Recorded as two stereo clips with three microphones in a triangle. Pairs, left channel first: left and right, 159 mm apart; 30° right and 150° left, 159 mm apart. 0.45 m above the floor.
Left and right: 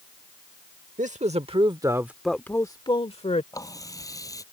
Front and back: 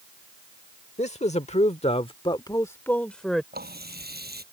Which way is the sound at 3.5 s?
160° left.